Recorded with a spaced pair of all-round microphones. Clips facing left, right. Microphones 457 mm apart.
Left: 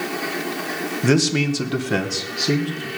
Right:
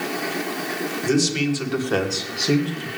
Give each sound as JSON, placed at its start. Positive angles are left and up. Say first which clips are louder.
{"t": 1.0, "sound": "a man speaking", "louder": "left 2 dB", "side_deg": 90, "distance_m": 1.1}